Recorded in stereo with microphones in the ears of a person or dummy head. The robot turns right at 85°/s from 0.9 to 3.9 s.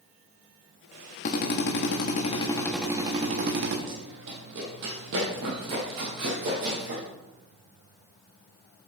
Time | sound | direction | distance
1.2 | a drill | 50° left | 1.2 m
3.9 | running footsteps | 65° right (ahead or behind) | 2.5 m